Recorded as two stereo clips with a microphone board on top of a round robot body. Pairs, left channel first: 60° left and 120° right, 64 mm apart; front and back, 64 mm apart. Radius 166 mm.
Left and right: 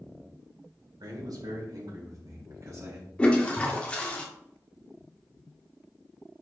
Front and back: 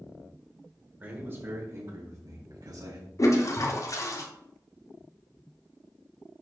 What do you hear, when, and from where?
1.0 s a man speaking: 120° right, 3 m; by 3.1 s 165° right, 4 m
3.2 s a toilet flushing: 10° right, 1.8 m